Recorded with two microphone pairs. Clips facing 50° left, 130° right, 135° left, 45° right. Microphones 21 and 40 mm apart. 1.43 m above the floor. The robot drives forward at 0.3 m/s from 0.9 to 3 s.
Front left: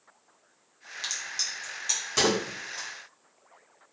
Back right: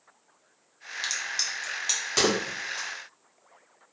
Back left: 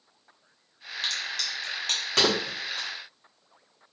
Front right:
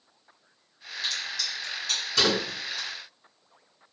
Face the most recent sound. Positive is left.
turn(degrees=175)